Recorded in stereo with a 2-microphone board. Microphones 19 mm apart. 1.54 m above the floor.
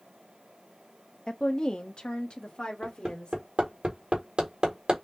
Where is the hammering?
55° right (ahead or behind), 2 m.